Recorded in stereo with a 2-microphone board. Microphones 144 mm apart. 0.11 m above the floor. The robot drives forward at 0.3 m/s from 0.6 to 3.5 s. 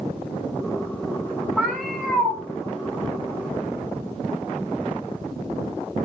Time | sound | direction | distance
1.6 | a cat meowing | 5° left (ahead or behind) | 3 m